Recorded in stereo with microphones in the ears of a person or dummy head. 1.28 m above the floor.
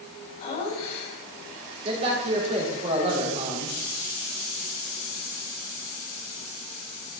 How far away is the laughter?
About 7.5 m.